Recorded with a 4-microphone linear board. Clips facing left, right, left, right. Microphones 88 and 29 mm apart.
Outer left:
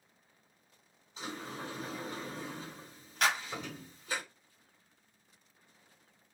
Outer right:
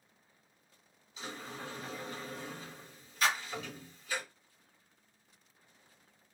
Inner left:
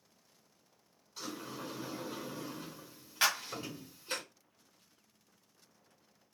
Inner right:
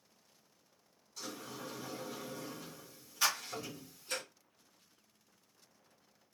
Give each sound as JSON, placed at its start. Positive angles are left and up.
{"t": 1.2, "sound": "a sliding door", "side_deg": 35, "distance_m": 1.7}
{"t": 3.2, "sound": "a clap", "side_deg": 65, "distance_m": 1.2}